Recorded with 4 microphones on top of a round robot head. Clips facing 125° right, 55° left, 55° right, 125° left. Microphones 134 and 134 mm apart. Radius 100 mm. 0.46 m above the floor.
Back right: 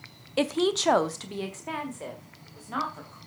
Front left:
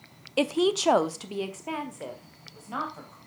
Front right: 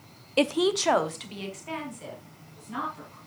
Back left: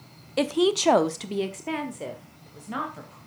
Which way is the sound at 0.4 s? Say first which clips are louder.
Front left 1 dB, back left 1 dB; 10° right.